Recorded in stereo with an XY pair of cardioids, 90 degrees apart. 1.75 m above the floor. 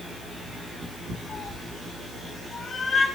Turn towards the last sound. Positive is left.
turn(degrees=30)